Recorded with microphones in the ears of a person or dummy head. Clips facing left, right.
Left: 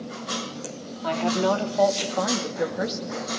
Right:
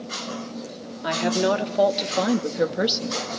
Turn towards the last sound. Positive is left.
turn(degrees=-50)  # may be behind; listen again after turning